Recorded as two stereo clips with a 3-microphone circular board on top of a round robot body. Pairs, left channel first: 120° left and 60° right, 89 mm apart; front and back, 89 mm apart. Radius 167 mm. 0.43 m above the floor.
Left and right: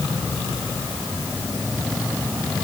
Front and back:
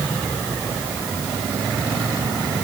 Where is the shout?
No shout in this recording.